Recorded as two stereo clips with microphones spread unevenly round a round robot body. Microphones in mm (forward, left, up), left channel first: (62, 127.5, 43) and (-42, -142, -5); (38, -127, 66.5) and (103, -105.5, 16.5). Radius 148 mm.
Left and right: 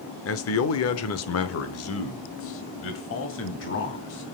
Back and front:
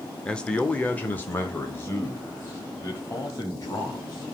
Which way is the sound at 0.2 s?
65° left.